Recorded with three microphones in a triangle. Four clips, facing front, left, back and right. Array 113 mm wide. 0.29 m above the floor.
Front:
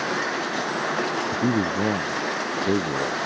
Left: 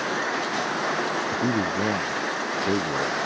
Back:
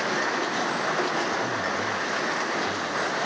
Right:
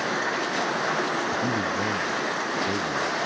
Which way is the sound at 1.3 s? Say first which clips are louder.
Left 2 dB, front 4 dB; 25° left.